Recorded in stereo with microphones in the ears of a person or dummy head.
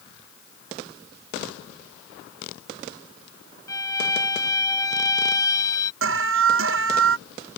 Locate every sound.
3.7 s a violin: 15° left (ahead or behind)
6.0 s an alarm: 65° right (ahead or behind)